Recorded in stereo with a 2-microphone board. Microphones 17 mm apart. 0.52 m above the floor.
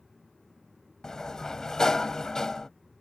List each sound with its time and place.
1.0 s a sliding door: 30° left (ahead or behind)